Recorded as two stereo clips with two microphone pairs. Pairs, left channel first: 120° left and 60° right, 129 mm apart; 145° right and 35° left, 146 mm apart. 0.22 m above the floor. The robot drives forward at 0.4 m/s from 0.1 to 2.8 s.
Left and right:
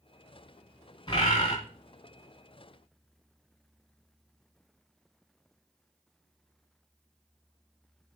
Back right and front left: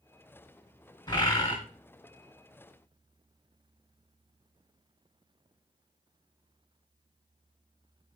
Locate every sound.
1.1 s a bird: 165° left, 2.5 m; by 1.6 s 170° left, 3 m